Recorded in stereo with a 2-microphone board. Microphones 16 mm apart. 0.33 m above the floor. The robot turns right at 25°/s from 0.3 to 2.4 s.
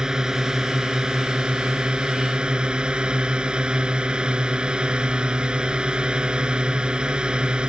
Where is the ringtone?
No ringtone in this recording.